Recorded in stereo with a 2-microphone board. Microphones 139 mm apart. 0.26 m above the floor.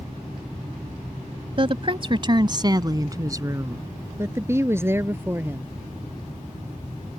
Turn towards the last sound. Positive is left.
turn(degrees=-15)  # may be behind; listen again after turning